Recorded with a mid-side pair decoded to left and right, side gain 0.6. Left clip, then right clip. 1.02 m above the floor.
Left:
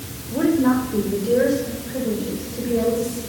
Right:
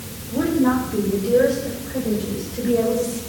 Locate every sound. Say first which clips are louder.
0.3 s a woman speaking: left 1 dB; 10° left, 4 m; by 3.2 s 15° right, 5 m